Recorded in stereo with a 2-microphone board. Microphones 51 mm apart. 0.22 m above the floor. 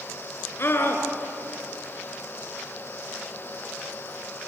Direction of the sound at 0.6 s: 50° left (ahead or behind).